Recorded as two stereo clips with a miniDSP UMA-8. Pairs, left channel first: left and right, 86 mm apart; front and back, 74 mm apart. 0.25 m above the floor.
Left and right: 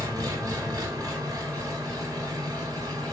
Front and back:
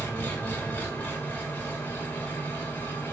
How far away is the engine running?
About 1.0 m.